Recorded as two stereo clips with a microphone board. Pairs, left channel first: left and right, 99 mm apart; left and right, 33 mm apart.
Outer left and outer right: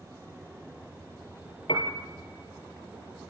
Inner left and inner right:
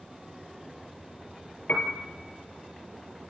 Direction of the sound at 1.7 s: 55° left (ahead or behind).